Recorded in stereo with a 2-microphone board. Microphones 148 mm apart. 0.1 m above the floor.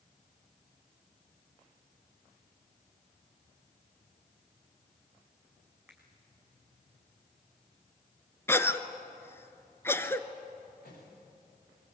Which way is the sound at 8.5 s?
15° left (ahead or behind).